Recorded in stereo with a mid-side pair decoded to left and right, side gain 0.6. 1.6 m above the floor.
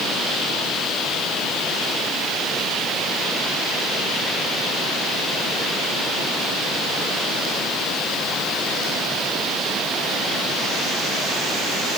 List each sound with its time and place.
Only background noise.